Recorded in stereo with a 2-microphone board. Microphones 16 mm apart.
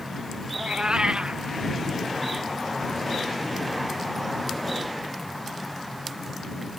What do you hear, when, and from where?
0.5 s a cat meowing: 85° right